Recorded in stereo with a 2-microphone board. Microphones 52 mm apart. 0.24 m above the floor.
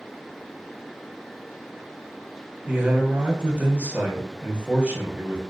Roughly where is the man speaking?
Right.